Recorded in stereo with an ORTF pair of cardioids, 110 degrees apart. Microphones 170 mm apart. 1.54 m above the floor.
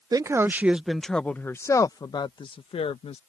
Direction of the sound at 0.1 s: 20° right.